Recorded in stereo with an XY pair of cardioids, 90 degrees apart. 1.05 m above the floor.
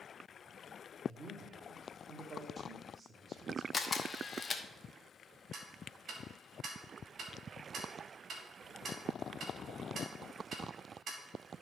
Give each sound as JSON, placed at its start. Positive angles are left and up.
{"t": 1.1, "sound": "a man speaking", "azimuth_deg": -45, "distance_m": 1.8}
{"t": 3.7, "sound": "a camera shutter", "azimuth_deg": 30, "distance_m": 1.0}
{"t": 5.5, "sound": "ticking", "azimuth_deg": -65, "distance_m": 1.7}